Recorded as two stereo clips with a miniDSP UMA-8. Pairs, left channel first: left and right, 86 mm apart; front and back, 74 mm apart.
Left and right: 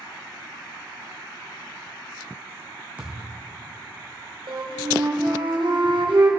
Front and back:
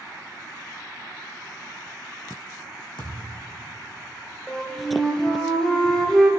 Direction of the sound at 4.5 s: 80° right.